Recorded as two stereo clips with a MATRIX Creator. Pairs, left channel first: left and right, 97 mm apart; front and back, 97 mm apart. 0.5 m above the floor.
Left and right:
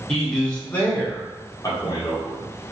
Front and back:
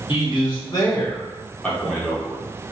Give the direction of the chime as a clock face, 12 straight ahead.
I don't hear a chime.